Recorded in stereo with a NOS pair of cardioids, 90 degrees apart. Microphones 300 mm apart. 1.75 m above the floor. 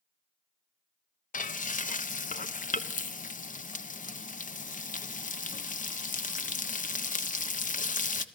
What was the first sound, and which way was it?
Frying, 25° left.